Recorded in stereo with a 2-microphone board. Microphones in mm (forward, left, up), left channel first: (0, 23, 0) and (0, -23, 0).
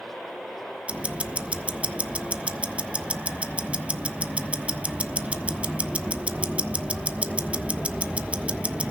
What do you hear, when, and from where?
0.9 s ticking: 25° right (ahead or behind), 1.1 m